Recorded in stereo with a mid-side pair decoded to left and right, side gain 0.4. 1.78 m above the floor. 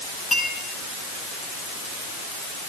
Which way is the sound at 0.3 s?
40° left.